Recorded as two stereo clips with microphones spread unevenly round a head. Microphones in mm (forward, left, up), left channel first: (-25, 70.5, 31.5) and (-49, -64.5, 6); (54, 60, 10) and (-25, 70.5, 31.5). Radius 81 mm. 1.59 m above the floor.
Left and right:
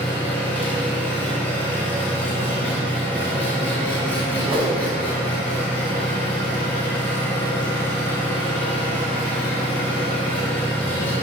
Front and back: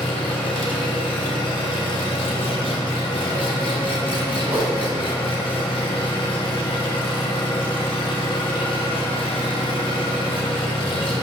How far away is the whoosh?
About 1.7 m.